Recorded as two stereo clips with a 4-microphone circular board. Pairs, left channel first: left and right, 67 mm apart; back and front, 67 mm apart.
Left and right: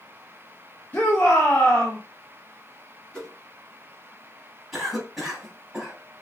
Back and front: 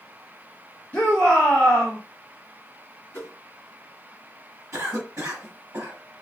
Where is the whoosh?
155° left, 1.6 m.